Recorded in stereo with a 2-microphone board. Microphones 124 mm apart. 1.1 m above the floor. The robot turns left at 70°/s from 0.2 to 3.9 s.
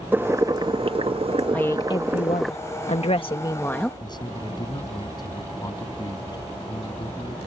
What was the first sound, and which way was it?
Boiling, 20° right.